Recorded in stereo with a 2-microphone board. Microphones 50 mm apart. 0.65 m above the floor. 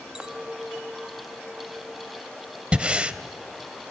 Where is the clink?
10° right (ahead or behind), 0.6 m.